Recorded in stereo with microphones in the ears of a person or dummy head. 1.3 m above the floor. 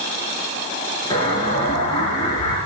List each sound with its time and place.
1.1 s an explosion: 30° left (ahead or behind), 6.5 m